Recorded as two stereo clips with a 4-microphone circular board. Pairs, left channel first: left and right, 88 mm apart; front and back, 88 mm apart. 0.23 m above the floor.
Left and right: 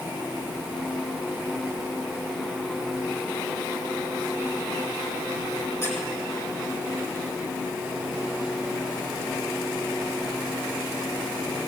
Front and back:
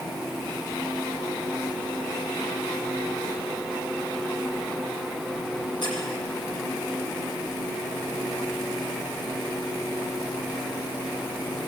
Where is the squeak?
30° left, 5 m.